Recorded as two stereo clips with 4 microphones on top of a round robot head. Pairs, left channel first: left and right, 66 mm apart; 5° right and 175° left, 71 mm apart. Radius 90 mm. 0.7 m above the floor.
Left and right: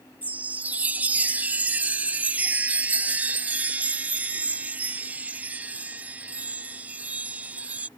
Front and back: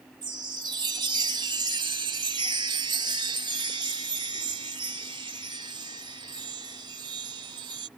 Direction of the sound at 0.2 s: 150° right.